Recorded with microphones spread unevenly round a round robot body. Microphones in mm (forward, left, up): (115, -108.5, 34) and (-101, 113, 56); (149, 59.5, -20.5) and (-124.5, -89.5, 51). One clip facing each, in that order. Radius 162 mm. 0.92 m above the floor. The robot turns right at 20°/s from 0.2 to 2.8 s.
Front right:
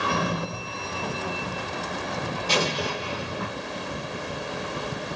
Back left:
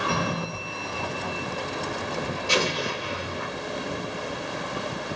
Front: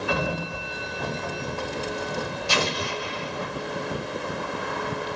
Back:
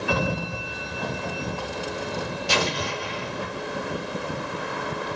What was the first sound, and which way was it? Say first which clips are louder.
A sliding door: front right 1 dB, back 3 dB; 150° right.